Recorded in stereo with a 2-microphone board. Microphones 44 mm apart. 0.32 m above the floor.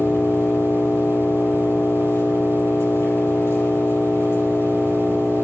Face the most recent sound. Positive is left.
turn(degrees=65)  # may be behind; listen again after turning